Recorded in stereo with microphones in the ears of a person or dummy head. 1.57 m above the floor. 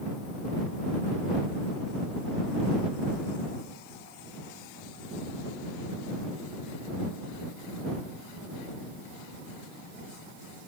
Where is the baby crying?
I don't hear a baby crying.